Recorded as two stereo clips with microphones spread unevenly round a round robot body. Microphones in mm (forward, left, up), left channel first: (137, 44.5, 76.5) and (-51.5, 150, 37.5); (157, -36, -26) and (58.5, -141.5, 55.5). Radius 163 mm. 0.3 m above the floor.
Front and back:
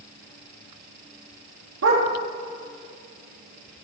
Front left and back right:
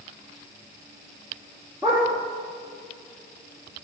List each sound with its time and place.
1.8 s a dog barking: 135° left, 2.5 m